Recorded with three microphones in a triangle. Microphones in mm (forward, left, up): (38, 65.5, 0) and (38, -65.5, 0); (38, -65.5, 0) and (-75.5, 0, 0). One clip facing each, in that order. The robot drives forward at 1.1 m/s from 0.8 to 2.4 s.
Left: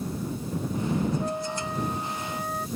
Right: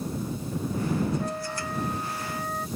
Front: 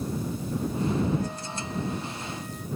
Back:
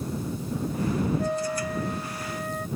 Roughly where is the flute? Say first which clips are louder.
Left 2 dB, back 6 dB; behind.